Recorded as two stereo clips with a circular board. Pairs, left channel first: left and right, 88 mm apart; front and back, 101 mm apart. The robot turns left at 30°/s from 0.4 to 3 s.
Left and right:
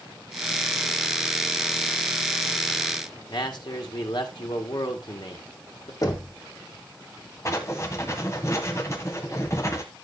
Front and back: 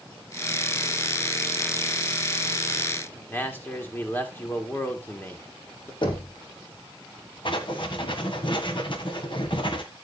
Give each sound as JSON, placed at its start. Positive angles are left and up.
{"t": 3.3, "sound": "a man speaking", "azimuth_deg": 70, "distance_m": 1.8}
{"t": 6.0, "sound": "knocking", "azimuth_deg": 40, "distance_m": 1.6}
{"t": 7.5, "sound": "writing", "azimuth_deg": 35, "distance_m": 1.5}